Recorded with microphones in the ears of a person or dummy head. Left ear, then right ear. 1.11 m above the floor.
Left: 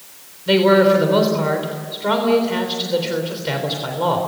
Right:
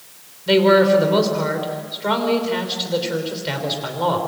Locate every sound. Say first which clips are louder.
0.5 s a man speaking: even; centre (ahead or behind), 3.5 m